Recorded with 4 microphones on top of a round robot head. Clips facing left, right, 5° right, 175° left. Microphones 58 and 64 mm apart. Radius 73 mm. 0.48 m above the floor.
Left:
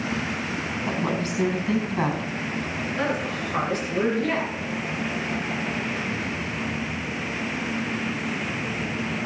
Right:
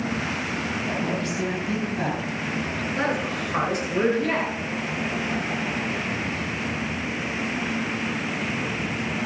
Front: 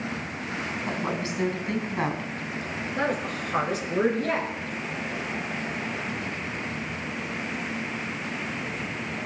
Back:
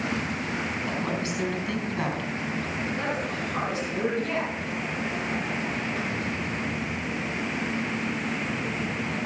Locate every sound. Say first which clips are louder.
0.8 s a woman speaking: left 3 dB, even; 50° left, 5 m
3.0 s a woman speaking: right 1 dB, front 1 dB; 5° right, 6.5 m